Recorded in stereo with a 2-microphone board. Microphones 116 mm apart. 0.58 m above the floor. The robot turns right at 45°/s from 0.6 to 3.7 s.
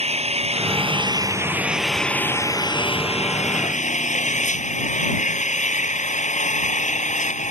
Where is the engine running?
60° right; by 7.5 s 80° left.